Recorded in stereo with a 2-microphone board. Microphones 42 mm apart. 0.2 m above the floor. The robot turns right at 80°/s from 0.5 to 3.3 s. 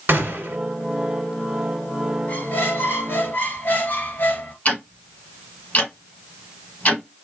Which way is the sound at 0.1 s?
55° right (ahead or behind).